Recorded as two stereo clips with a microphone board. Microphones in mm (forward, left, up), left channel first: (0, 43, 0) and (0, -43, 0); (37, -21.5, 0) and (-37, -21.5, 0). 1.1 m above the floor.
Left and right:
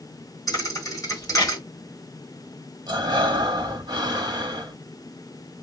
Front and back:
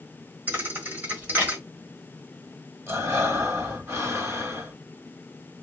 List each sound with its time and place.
0.5 s a thud: 120° left, 1.3 m
2.9 s breathing: 125° right, 1.2 m